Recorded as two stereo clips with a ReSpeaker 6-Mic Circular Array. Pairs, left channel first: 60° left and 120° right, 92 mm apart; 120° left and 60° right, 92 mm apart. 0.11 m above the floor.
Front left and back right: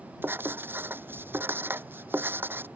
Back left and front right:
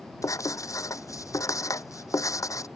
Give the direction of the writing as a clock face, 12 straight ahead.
6 o'clock.